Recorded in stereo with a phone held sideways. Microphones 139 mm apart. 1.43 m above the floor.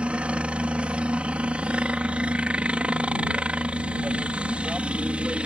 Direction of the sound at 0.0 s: 10° right (ahead or behind).